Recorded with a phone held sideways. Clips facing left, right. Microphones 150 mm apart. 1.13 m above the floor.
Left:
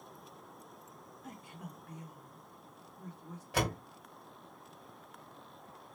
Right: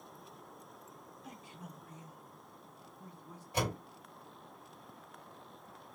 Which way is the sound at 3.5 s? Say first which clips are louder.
Left 2 dB; 85° left.